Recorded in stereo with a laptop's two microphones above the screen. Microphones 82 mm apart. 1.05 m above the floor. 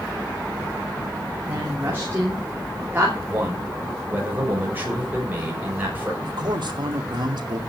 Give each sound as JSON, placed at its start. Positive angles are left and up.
{"t": 1.4, "sound": "a woman speaking", "side_deg": -25, "distance_m": 3.0}
{"t": 3.3, "sound": "a man speaking", "side_deg": -20, "distance_m": 6.0}
{"t": 6.2, "sound": "a man speaking", "side_deg": -65, "distance_m": 2.5}